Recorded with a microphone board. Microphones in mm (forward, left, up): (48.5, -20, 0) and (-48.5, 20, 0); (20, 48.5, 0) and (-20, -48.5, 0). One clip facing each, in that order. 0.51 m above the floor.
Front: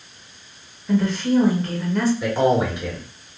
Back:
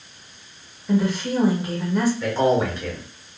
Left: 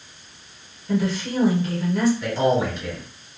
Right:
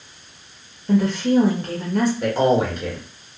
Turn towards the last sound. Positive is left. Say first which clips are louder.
# front 1 dB, right 3 dB
turn(degrees=-95)